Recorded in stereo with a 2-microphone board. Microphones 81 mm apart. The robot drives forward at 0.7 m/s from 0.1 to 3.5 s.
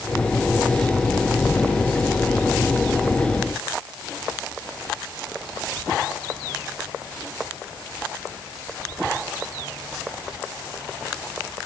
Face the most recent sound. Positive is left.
No sound to turn to.